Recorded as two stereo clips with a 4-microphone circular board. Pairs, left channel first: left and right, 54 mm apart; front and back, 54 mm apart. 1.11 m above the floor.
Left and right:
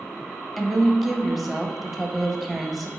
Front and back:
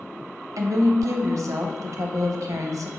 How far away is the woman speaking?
About 0.6 m.